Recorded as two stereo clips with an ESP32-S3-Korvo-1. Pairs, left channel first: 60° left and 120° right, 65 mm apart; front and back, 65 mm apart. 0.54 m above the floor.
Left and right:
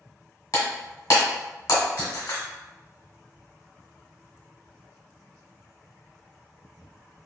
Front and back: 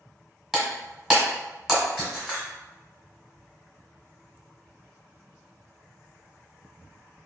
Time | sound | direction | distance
0.5 | breaking glass | 95° left | 1.1 m